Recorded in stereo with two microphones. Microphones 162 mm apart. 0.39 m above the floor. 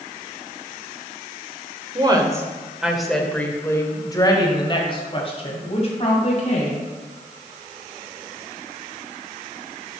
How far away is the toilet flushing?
I don't hear a toilet flushing.